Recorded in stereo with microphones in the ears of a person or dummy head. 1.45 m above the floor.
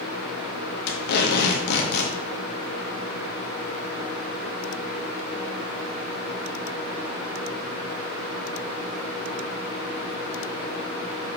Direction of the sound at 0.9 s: 55° left (ahead or behind).